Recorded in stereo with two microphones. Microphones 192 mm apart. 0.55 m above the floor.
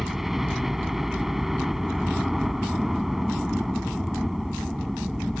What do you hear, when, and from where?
0.0 s a helicopter: centre (ahead or behind)